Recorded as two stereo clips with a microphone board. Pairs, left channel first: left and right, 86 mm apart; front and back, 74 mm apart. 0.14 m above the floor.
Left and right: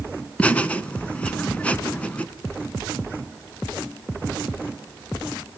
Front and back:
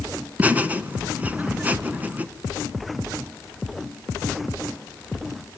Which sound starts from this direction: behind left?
Laughter, at 0.4 s.